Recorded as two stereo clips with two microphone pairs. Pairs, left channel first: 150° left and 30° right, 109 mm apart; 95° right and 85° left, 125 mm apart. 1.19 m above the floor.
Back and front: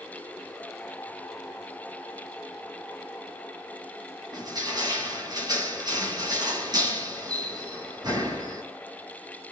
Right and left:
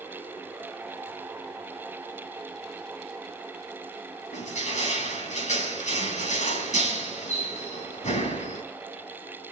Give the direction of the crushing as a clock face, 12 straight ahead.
3 o'clock.